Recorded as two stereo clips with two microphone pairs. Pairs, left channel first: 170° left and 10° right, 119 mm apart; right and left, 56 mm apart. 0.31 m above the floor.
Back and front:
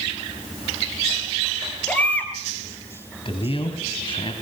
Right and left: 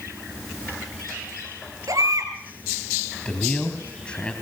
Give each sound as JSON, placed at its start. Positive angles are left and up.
{"t": 1.9, "sound": "a baby crying", "azimuth_deg": 95, "distance_m": 4.5}
{"t": 3.2, "sound": "a man speaking", "azimuth_deg": -160, "distance_m": 2.5}